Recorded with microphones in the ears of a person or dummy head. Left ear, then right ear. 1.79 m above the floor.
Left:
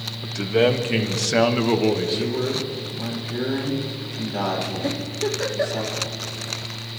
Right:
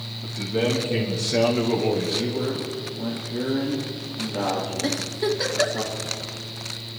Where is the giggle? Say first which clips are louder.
Right 1 dB; 35° right (ahead or behind), 2.5 m.